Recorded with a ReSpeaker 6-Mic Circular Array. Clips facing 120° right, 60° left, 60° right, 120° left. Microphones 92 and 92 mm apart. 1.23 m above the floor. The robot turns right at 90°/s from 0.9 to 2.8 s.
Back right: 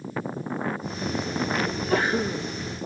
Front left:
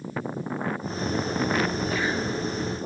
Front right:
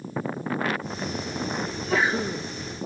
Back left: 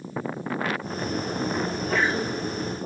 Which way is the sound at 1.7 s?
175° right.